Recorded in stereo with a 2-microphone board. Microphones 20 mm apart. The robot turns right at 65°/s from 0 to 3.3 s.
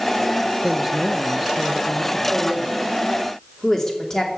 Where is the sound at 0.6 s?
20° right (ahead or behind), 0.8 m; by 2.2 s 25° left (ahead or behind), 0.8 m.